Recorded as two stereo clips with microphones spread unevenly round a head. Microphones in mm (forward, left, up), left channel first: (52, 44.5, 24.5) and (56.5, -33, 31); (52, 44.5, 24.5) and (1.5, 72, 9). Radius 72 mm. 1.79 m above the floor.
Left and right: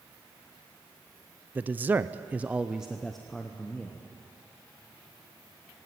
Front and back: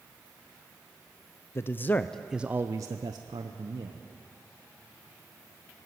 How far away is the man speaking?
About 0.7 m.